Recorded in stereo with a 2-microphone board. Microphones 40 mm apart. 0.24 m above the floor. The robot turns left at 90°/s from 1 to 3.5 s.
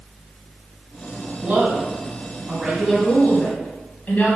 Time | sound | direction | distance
1.4 | a woman speaking | 55° right | 1.3 m